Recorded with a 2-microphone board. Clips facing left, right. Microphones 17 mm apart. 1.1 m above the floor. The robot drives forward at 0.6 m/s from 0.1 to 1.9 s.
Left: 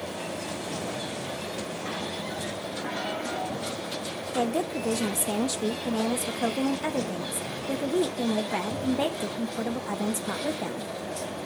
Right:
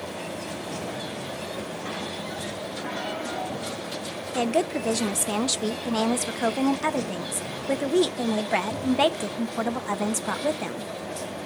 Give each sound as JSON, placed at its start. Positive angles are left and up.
{"t": 4.3, "sound": "a woman speaking", "side_deg": -45, "distance_m": 0.6}